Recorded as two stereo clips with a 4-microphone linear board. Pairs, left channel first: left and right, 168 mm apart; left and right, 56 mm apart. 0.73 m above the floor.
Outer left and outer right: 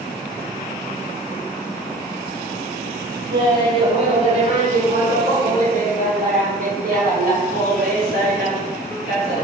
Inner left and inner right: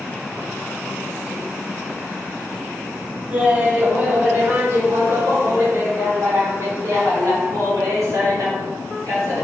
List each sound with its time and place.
3.3 s laughter: 25° right (ahead or behind), 1.8 m; by 9.4 s 75° right (ahead or behind), 4.5 m